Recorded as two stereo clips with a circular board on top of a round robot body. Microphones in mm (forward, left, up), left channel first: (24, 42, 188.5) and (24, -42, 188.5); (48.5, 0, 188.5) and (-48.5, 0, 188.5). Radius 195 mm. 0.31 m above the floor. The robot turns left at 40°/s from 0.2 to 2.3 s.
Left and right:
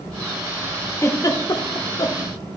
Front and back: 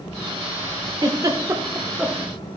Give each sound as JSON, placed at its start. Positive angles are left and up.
{"t": 1.0, "sound": "a giggle", "azimuth_deg": 140, "distance_m": 1.1}